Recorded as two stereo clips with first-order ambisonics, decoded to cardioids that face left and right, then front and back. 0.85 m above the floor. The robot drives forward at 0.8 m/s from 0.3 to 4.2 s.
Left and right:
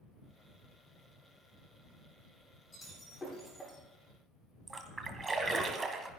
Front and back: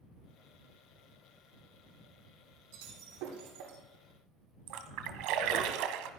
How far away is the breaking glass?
About 8.5 m.